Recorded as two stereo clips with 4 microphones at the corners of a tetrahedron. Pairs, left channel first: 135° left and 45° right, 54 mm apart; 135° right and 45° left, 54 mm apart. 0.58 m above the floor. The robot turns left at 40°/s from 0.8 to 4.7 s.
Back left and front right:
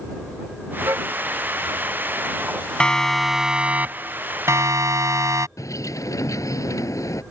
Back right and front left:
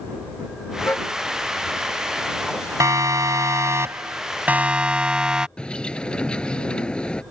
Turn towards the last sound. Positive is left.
turn(degrees=150)